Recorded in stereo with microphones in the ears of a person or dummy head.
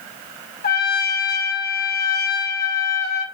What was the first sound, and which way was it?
A trumpet, 50° left (ahead or behind).